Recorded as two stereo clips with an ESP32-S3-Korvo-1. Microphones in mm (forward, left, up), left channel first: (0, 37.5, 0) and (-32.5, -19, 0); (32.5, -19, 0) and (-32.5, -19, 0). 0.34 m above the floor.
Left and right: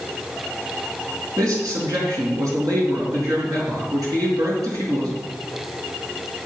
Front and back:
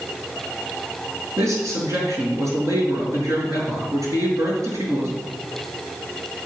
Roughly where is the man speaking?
Behind right.